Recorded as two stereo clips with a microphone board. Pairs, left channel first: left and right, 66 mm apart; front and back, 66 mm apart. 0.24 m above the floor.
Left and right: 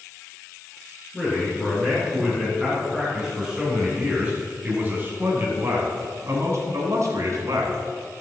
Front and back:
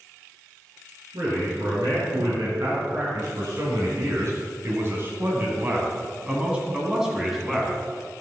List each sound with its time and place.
1.1 s a man speaking: 170° left, 3 m; by 7.8 s 90° right, 2.5 m